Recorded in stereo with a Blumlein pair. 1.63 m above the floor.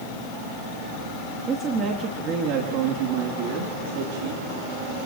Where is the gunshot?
I don't hear a gunshot.